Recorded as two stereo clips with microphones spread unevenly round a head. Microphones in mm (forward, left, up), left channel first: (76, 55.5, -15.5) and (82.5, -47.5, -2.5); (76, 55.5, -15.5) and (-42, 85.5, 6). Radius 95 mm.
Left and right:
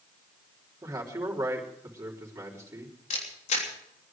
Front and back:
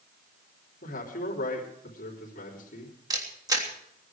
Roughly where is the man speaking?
Ahead right.